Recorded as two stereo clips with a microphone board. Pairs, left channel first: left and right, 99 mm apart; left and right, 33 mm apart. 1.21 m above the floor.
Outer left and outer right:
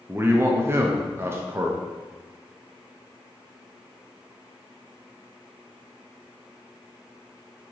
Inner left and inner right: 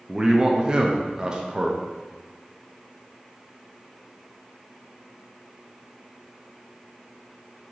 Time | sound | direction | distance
0.1 | a man speaking | 25° right (ahead or behind) | 0.5 m